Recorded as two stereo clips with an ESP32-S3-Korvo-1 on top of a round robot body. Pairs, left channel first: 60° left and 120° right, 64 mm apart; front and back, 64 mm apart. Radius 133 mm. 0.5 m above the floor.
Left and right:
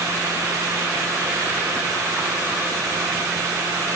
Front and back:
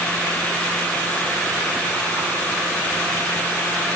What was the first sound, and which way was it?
Only background noise.